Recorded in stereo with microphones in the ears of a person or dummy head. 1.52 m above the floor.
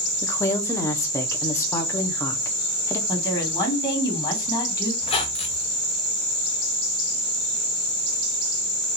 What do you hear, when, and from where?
0.2 s a woman speaking: 15° left (ahead or behind), 0.6 m
3.1 s a woman speaking: 20° left (ahead or behind), 1.4 m
5.0 s a squeak: 25° left (ahead or behind), 0.6 m